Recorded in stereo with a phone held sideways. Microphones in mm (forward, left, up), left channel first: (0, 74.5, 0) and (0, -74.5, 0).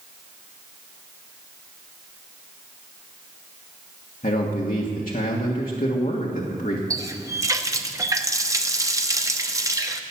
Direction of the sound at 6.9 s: 20° right (ahead or behind).